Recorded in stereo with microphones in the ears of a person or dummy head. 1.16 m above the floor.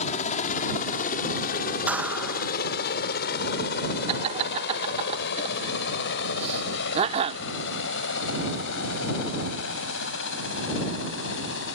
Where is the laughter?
30° right (ahead or behind).